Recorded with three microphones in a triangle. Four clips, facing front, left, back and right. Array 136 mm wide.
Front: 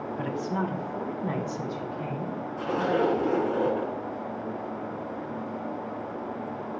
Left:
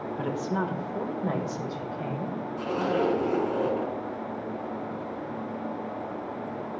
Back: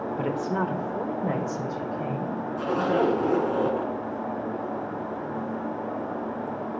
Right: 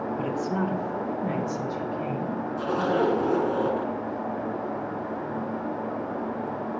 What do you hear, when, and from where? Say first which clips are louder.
0.2 s a woman speaking: even, back 2 dB; 170° left, 1.3 m; by 2.4 s 150° left, 3 m
2.6 s a zipper: right 2 dB, back 2 dB; 165° right, 1.8 m